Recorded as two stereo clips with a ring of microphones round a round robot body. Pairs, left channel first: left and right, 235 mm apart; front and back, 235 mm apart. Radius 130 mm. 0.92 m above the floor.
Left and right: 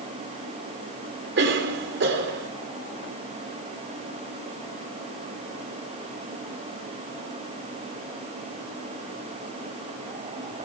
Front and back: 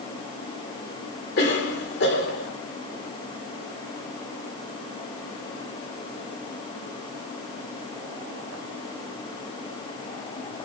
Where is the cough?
50° right, 3.5 m.